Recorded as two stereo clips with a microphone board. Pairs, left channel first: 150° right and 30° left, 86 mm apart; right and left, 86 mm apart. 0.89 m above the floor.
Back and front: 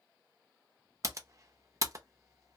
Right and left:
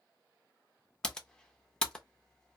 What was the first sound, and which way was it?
Typing on a keyboard, 10° right.